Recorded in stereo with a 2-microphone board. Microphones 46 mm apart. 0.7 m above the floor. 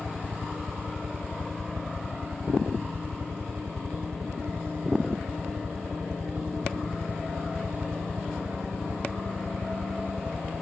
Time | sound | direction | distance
0.0 | a helicopter | 70° right (ahead or behind) | ?